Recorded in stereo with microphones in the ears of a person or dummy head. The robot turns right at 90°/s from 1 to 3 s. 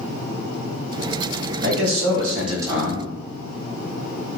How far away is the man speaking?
About 1.2 m.